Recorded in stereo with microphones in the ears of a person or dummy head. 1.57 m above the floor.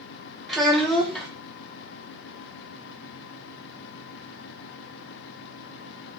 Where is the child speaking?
5° right (ahead or behind), 0.7 m.